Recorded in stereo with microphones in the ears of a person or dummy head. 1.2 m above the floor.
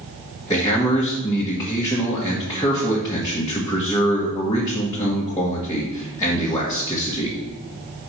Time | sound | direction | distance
0.5 | a man speaking | 20° left (ahead or behind) | 1.3 m